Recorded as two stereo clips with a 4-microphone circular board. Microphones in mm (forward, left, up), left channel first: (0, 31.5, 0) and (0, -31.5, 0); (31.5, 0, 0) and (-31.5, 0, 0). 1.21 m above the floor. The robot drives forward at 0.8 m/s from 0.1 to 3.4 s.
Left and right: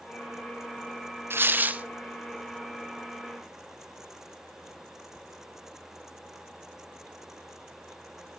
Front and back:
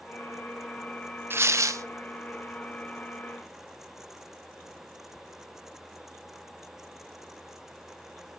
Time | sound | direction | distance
1.3 | tearing paper | 135° right | 0.6 m